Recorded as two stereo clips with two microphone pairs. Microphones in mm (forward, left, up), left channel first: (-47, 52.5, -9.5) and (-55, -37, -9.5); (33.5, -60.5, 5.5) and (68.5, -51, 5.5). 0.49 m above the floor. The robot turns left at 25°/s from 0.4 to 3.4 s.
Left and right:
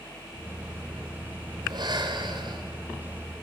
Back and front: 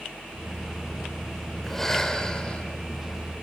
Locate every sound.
1.6 s breathing: 80° right, 2 m; by 2.7 s 105° right, 2 m